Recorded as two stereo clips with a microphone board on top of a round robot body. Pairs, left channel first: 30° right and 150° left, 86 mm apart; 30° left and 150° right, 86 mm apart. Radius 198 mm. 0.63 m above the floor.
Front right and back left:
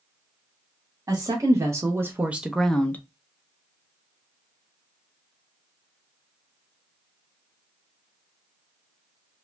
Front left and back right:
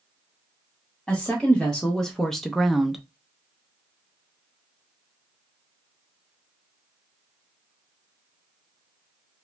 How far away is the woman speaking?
About 1.1 m.